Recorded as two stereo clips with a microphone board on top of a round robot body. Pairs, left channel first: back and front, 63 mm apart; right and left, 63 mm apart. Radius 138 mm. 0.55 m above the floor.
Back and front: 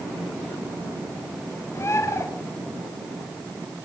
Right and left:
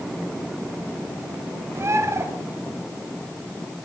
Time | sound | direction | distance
1.8 | a bird | 135° left | 3.5 m